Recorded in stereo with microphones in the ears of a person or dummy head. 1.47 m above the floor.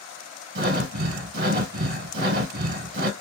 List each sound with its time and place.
0.6 s breathing: 50° right (ahead or behind), 0.7 m